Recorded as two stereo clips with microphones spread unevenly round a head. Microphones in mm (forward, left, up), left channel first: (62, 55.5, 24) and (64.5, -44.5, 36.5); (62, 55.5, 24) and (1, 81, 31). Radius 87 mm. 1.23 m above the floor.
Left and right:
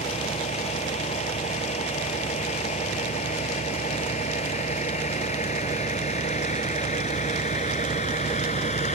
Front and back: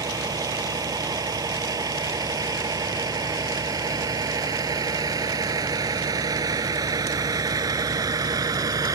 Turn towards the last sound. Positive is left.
turn(degrees=130)